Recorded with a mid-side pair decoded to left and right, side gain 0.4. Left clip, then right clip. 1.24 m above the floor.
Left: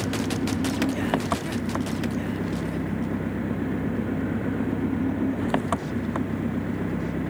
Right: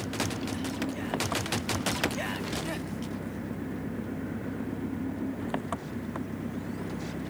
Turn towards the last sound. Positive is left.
turn(degrees=60)